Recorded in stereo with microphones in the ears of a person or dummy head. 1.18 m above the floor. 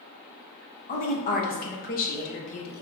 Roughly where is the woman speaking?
Left.